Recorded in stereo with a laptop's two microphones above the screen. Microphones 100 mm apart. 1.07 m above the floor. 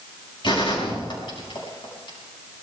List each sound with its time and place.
0.4 s a gunshot: 55° left (ahead or behind), 6 m